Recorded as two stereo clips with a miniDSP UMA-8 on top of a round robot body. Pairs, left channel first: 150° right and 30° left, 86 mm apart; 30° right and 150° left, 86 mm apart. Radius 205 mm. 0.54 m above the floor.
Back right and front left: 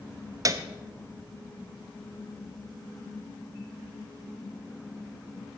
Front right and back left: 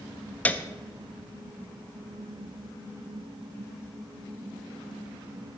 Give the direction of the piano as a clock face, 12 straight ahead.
11 o'clock.